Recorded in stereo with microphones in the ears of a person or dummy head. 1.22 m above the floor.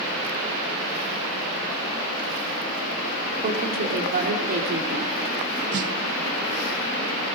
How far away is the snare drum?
About 1.3 m.